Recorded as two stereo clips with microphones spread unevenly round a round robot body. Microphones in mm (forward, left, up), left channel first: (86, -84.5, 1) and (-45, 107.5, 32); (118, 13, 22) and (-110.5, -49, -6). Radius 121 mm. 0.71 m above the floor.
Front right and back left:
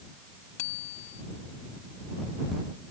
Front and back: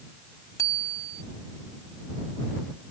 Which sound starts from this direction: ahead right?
A bicycle bell, at 0.6 s.